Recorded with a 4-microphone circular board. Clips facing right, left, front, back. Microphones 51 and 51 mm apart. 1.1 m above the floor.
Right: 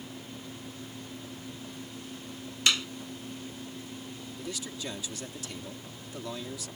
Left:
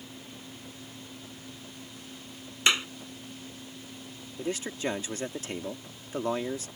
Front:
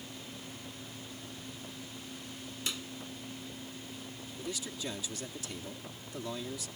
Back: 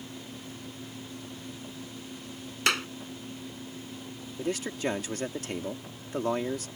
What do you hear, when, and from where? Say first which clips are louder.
2.7 s a clap: left 2 dB, back 14 dB; 155° left
4.4 s a man speaking: left 8 dB, back 9 dB; 140° left